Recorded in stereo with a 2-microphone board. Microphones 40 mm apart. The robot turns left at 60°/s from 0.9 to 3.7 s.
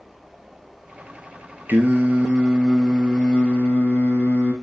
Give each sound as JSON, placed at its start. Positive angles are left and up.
{"t": 1.7, "sound": "singing", "azimuth_deg": -110, "distance_m": 2.0}